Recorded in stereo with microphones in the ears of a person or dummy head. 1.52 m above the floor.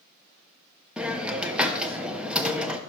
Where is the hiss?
10° right (ahead or behind), 0.9 m.